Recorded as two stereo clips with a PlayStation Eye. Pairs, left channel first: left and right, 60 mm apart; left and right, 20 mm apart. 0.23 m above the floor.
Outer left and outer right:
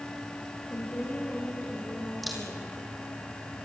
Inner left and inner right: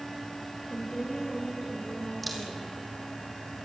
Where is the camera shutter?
Centre (ahead or behind), 3.5 m.